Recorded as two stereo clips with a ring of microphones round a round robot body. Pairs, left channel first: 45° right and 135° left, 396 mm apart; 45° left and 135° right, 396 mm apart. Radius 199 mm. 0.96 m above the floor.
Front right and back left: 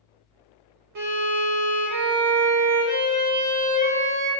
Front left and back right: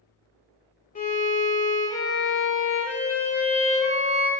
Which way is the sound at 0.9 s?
110° left.